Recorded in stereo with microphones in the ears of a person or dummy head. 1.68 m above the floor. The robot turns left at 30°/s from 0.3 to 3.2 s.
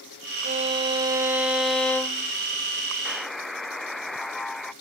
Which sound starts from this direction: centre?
A buzzer, at 3.0 s.